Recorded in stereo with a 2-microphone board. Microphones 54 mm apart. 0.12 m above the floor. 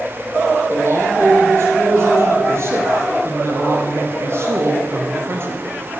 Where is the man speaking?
55° right (ahead or behind), 5 m; by 5.7 s 45° right (ahead or behind), 2.5 m.